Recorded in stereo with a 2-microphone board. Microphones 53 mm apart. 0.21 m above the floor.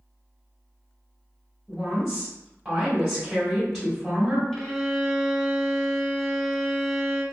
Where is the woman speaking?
5° right (ahead or behind), 1.1 m.